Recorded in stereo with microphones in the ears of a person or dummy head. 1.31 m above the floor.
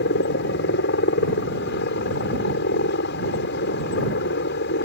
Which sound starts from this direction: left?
A helicopter, at 0.0 s.